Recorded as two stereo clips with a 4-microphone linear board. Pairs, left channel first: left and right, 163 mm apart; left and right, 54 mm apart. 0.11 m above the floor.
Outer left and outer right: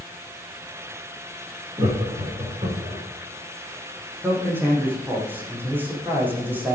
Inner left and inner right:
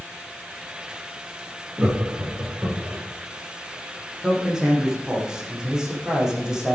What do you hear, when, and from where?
1.8 s laughter: 30° right (ahead or behind), 7.5 m; by 3.0 s 35° right (ahead or behind), 8 m
4.2 s a man speaking: 10° right (ahead or behind), 7 m